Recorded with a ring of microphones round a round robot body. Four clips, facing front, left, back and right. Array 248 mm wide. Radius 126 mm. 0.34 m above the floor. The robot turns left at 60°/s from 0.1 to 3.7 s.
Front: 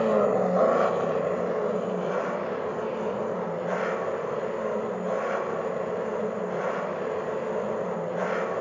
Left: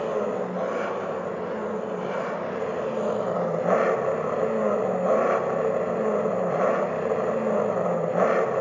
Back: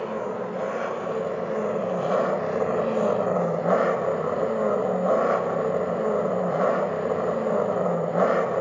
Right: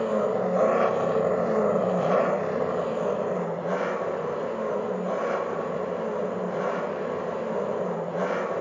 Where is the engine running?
5° right, 0.8 m; by 8.6 s 140° left, 0.8 m.